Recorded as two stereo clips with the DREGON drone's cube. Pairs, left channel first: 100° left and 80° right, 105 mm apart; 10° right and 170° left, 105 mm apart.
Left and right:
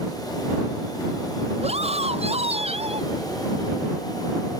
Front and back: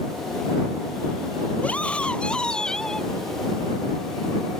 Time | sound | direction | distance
1.6 | a scream | 90° right | ?